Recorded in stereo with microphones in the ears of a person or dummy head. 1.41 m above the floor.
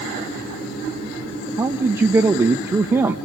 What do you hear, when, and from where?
1.6 s a man speaking: 10° right (ahead or behind), 1.3 m